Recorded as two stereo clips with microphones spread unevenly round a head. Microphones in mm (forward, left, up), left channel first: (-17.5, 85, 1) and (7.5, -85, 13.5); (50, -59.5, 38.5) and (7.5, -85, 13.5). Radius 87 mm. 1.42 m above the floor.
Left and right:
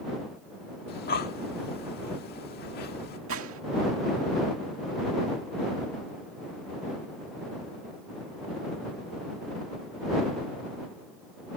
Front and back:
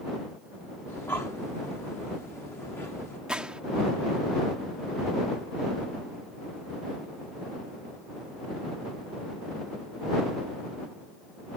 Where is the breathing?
65° left.